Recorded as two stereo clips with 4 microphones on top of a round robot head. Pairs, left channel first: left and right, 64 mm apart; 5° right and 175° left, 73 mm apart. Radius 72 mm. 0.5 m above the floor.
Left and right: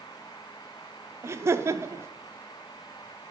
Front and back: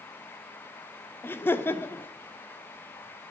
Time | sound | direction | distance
1.2 | laughter | 60° right | 1.4 m